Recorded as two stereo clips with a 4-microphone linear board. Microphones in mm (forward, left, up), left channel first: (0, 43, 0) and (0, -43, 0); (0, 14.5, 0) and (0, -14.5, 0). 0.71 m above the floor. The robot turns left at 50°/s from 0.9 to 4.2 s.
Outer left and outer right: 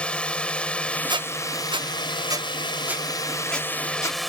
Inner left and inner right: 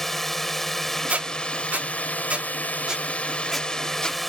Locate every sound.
0.0 s a drone: 165° left; by 4.3 s straight ahead
1.1 s a squeak: 65° right (ahead or behind); by 4.2 s 45° left (ahead or behind)